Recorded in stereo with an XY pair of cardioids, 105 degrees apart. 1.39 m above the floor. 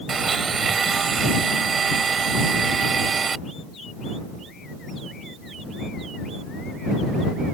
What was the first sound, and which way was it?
A blender, 40° right.